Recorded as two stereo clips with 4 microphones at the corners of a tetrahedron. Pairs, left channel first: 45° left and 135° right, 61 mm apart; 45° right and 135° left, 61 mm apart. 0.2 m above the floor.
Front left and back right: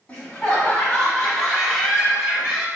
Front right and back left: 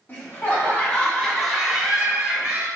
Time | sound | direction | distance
0.1 | laughter | 20° right | 1.5 m